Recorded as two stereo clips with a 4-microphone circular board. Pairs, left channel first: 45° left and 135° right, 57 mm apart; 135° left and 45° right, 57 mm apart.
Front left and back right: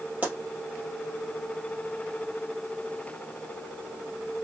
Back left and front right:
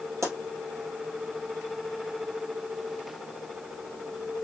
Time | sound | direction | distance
0.2 | a pop | 75° right | 2.5 m